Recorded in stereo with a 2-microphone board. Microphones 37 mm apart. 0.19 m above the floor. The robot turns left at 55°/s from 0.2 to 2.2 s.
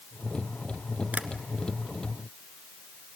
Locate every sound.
1.1 s tapping: 50° right (ahead or behind), 1.1 m; by 1.3 s 45° right (ahead or behind), 1.1 m